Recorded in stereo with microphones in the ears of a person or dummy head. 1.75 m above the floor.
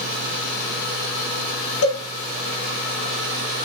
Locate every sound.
1.8 s a cowbell: 65° left (ahead or behind), 3 m